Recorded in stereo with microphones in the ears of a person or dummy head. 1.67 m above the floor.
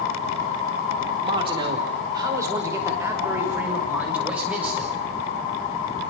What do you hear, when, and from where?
1.2 s a man speaking: 30° right (ahead or behind), 5 m; by 4.9 s 5° right (ahead or behind), 7.5 m